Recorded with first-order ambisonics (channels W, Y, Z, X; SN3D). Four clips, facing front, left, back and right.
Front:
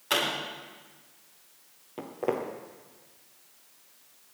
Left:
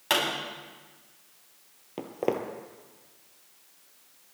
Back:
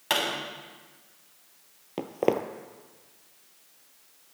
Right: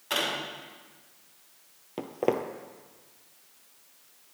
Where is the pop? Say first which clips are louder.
Left 3 dB, even; 130° left, 7 m.